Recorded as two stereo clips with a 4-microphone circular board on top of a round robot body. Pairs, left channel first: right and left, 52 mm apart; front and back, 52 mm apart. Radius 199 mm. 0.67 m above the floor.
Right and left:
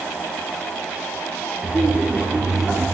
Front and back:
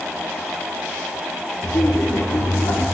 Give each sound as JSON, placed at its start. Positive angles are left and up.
{"t": 1.6, "sound": "laughter", "azimuth_deg": 20, "distance_m": 2.0}